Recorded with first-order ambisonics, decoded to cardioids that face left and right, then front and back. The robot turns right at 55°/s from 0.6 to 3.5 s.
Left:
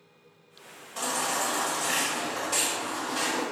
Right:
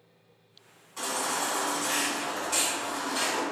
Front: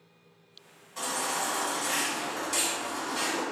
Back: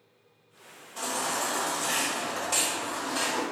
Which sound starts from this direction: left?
A baby crying, at 1.0 s.